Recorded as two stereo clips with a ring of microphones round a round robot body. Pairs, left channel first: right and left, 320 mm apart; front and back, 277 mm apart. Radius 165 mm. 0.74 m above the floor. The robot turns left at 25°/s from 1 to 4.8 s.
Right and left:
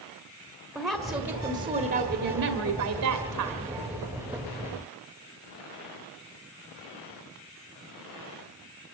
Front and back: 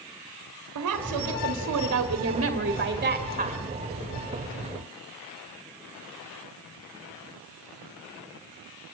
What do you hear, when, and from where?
0.8 s a woman speaking: 175° left, 1.8 m; by 3.7 s 105° left, 1.8 m